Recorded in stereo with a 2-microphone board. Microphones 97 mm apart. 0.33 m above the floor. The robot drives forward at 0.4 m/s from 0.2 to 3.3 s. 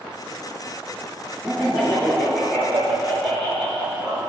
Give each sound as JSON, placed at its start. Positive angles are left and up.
{"t": 1.4, "sound": "laughter", "side_deg": 10, "distance_m": 4.5}